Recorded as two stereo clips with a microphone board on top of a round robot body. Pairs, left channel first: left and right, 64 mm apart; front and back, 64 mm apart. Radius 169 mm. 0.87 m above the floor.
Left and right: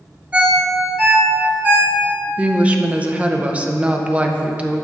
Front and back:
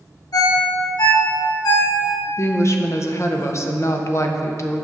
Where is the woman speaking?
25° right, 0.7 m.